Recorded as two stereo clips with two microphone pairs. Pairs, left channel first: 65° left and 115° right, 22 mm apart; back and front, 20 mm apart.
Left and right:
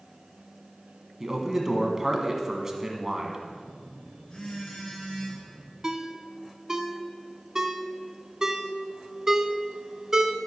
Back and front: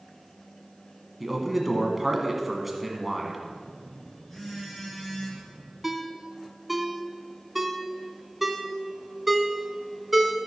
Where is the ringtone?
85° right, 0.8 m.